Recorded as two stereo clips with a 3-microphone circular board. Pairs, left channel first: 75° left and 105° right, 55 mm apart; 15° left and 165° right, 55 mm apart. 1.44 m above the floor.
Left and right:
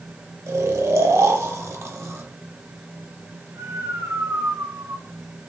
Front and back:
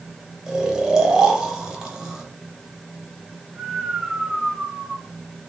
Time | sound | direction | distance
0.5 | snoring | 90° right | 0.6 m